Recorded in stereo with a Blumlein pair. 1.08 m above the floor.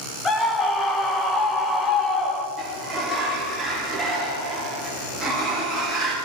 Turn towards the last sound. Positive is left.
turn(degrees=-10)